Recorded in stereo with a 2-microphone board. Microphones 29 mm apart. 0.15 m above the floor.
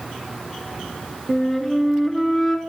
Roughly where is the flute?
Centre.